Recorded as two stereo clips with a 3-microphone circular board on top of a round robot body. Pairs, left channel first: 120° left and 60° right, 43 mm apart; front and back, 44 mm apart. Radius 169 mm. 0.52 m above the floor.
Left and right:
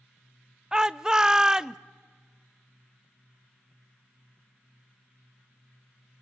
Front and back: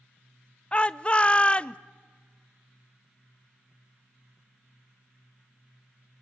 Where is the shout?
5° right, 0.6 m.